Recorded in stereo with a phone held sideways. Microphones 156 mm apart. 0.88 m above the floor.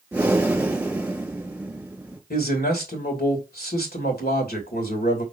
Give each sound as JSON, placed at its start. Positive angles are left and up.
{"t": 0.1, "sound": "breathing", "side_deg": -10, "distance_m": 1.8}
{"t": 2.3, "sound": "a man speaking", "side_deg": 85, "distance_m": 3.0}